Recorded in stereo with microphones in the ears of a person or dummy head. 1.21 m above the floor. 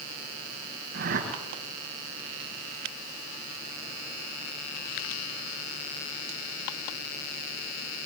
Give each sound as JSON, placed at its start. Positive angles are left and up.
{"t": 0.9, "sound": "a whoosh", "side_deg": -60, "distance_m": 4.0}